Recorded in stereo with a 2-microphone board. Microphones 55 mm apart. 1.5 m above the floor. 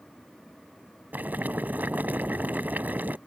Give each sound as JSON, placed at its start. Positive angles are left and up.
{"t": 1.1, "sound": "boiling", "side_deg": -30}